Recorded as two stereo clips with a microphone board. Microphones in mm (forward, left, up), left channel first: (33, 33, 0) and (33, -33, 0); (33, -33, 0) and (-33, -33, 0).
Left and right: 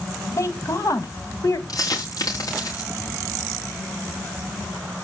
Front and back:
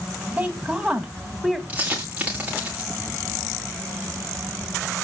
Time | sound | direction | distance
0.4 | a woman speaking | 115° left | 1.8 m
1.7 | a dropped coin | 115° left | 8 m